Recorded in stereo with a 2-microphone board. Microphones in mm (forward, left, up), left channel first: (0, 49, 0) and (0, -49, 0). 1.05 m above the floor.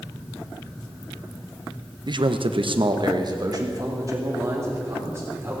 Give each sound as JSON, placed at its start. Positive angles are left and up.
{"t": 2.1, "sound": "a man speaking", "side_deg": -50, "distance_m": 0.8}